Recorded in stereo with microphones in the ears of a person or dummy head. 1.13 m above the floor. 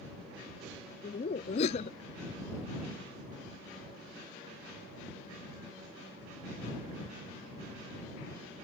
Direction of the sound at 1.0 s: 40° left (ahead or behind).